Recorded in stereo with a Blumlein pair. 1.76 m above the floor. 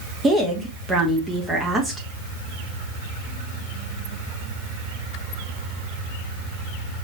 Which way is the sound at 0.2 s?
15° right.